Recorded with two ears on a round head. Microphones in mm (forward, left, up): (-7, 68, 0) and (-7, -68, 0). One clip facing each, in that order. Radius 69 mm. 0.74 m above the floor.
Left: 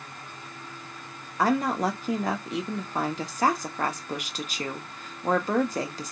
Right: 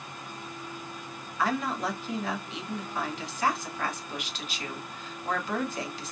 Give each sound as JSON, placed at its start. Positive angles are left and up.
{"t": 1.4, "sound": "a woman speaking", "side_deg": 40, "distance_m": 0.8}